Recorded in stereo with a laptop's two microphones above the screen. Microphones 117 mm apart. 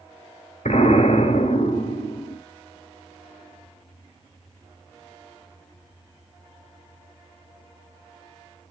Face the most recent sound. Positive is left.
turn(degrees=70)  # may be behind; listen again after turning